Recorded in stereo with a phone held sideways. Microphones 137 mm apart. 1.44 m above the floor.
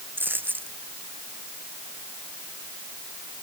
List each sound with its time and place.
0.2 s a dropped coin: 15° right (ahead or behind)